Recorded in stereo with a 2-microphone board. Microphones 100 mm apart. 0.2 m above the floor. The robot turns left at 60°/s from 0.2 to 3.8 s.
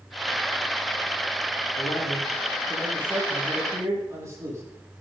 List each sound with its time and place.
1.8 s a man speaking: 95° left, 7.5 m; by 4.6 s 30° right, 7.5 m